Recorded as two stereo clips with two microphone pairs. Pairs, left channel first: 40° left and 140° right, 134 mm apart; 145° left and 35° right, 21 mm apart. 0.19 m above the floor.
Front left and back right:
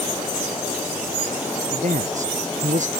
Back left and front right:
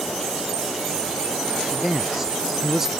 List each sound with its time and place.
1.7 s a man speaking: 115° right